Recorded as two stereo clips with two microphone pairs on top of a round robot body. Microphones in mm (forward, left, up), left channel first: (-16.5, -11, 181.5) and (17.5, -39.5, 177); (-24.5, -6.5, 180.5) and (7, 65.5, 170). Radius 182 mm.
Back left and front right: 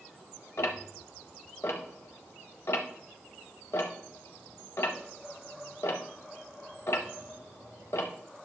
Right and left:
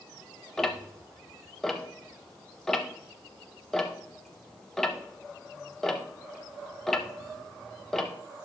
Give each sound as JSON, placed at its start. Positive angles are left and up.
{"t": 0.6, "sound": "ticking", "azimuth_deg": 160, "distance_m": 0.6}